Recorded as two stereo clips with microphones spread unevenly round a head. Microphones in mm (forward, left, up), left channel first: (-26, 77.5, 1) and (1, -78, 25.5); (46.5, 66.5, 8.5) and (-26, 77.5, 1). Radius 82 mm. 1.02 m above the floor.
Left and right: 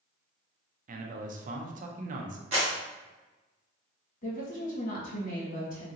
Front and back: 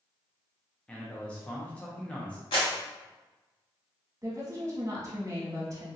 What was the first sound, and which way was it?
A man speaking, 85° right.